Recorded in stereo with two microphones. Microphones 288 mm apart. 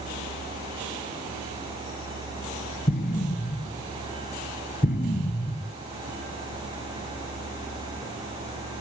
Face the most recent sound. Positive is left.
turn(degrees=30)  # may be behind; listen again after turning